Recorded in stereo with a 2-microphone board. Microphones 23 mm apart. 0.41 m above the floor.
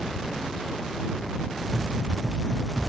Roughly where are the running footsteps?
Right.